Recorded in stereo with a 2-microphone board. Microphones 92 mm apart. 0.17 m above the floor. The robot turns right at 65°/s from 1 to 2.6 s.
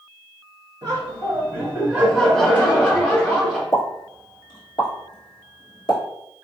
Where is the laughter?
80° right, 1.9 m; by 3.6 s 25° left, 1.9 m.